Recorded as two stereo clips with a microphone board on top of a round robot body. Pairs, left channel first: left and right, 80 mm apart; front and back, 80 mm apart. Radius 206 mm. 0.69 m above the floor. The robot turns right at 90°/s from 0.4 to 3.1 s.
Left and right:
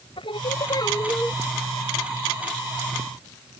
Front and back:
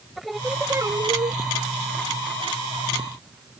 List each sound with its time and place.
0.2 s singing: 90° left; by 1.4 s straight behind